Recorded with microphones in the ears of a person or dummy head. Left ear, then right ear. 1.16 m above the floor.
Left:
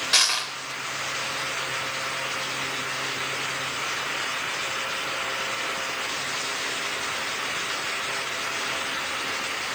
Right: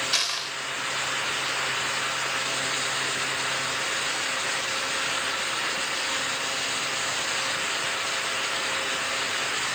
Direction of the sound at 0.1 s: 15° left (ahead or behind).